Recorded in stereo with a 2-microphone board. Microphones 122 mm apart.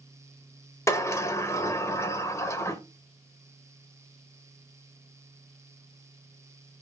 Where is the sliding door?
20° left (ahead or behind), 0.8 m.